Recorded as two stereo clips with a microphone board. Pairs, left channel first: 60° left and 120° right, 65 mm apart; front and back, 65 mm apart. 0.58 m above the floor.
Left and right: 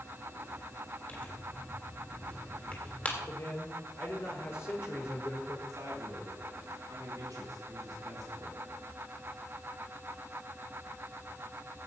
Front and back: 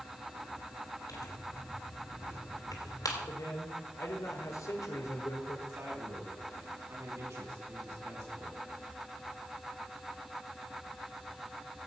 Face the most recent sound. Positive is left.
turn(degrees=-145)